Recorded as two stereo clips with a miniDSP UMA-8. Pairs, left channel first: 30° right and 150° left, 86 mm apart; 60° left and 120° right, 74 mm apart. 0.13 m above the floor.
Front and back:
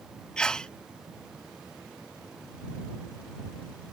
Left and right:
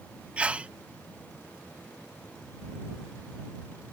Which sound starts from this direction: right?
A sneeze, at 0.4 s.